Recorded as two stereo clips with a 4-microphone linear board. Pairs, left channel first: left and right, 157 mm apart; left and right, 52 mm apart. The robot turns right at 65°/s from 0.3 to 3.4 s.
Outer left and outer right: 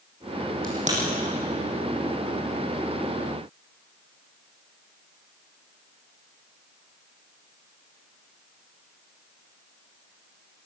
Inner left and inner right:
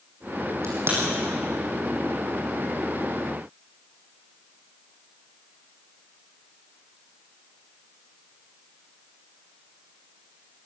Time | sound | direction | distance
0.6 | a crack | 65° right (ahead or behind) | 7.5 m